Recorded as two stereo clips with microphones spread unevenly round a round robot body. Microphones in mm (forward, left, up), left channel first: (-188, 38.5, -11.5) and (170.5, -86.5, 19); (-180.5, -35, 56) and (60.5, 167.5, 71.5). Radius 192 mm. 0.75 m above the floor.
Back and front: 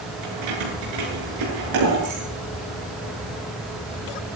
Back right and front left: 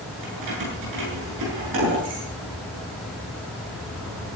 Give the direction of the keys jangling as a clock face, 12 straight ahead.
12 o'clock.